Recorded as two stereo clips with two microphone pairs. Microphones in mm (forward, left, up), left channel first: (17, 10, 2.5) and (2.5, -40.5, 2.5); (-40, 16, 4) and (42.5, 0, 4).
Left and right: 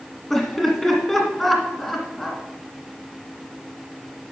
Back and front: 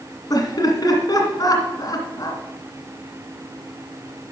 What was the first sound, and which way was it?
Laughter, 165° left.